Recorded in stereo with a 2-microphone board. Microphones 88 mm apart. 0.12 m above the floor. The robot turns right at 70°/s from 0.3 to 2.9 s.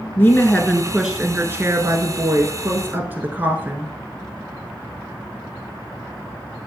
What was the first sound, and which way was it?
A woman speaking, 140° left.